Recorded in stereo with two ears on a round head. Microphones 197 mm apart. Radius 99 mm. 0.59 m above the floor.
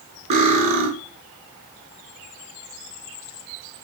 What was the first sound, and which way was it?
Cutlery clinking, 30° right (ahead or behind).